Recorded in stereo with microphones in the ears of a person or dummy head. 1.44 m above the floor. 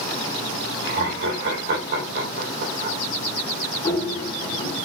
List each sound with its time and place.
0.8 s laughter: 55° right (ahead or behind), 2 m
3.8 s running footsteps: 25° left (ahead or behind), 1.9 m